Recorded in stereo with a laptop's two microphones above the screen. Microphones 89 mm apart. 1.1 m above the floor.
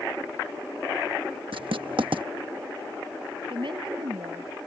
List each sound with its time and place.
1.5 s writing: 80° right
3.5 s a woman speaking: 65° right (ahead or behind)